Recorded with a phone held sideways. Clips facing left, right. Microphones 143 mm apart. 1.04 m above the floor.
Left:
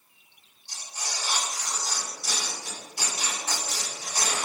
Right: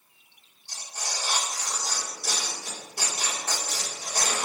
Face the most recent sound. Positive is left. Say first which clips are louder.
# right 1 dB
turn(degrees=-50)  # may be behind; listen again after turning